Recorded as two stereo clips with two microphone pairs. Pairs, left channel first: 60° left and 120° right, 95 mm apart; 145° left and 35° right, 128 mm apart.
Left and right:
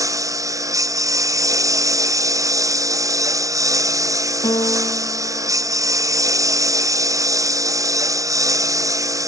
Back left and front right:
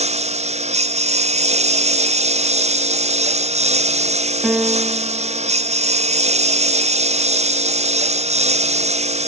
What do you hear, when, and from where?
0.0 s a lawn mower: 65° right
4.4 s a piano: 55° left